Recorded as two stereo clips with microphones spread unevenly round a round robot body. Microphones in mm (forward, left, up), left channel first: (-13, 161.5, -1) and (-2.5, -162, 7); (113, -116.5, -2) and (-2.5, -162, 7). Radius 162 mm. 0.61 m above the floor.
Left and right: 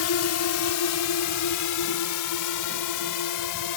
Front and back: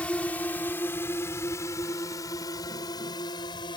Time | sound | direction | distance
0.0 | a drone | 100° left | ?